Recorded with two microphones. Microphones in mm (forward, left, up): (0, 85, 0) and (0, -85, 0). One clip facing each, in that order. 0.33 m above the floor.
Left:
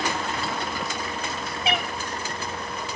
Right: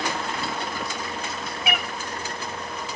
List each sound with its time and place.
1.6 s a cat meowing: 30° left (ahead or behind), 1.0 m